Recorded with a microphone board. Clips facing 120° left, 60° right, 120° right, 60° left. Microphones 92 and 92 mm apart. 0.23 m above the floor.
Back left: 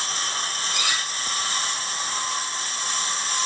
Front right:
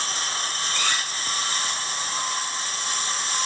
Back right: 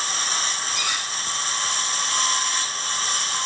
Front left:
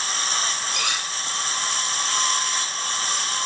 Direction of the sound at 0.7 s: 40° left.